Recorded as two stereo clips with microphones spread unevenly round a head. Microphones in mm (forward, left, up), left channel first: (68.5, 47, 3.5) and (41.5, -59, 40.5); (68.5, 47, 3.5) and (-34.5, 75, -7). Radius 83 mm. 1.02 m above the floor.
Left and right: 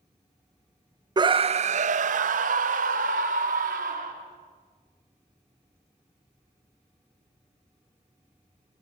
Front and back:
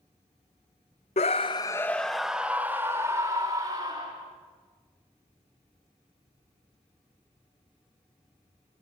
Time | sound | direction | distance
1.2 | a scream | 45° right | 0.7 m